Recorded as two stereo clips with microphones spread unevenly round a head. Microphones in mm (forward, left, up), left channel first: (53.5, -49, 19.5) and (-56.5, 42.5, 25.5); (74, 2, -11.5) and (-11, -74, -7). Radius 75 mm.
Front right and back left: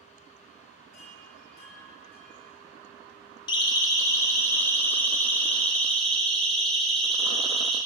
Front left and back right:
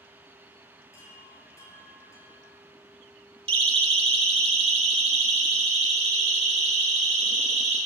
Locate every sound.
0.9 s a chime: 20° right, 7.5 m
3.5 s a siren: 100° right, 3 m; by 7.8 s 125° right, 8 m